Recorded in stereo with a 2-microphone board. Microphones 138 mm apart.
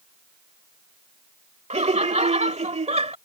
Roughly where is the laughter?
Right.